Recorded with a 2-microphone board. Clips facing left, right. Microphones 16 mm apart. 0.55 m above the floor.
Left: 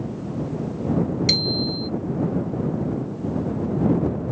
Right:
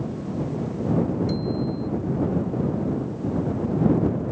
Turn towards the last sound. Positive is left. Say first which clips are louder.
# left 5 dB
turn(degrees=75)  # may be behind; listen again after turning